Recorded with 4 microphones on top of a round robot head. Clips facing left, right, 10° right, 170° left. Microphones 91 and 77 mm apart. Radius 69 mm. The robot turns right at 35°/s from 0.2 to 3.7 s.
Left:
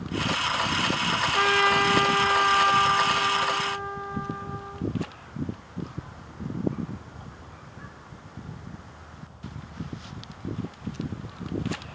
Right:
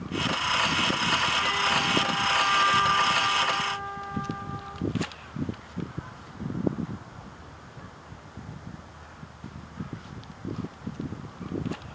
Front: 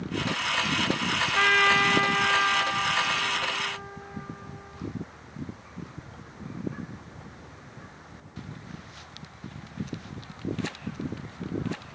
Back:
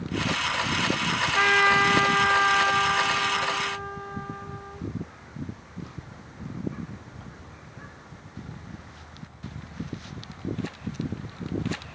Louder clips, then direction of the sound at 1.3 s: Left 5 dB, back 2 dB; 80° left.